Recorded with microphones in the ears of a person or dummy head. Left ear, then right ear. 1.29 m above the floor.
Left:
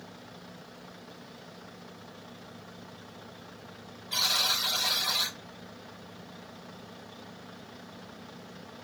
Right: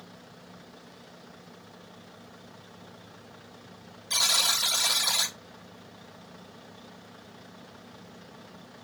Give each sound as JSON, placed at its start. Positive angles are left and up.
{"t": 4.1, "sound": "a buzzer", "side_deg": -70, "distance_m": 1.3}